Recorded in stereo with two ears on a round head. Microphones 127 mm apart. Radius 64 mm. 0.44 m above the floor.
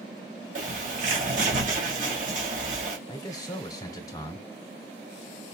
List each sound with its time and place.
0.6 s a bird: 55° right (ahead or behind), 2.0 m
3.1 s a man speaking: 25° left (ahead or behind), 1.3 m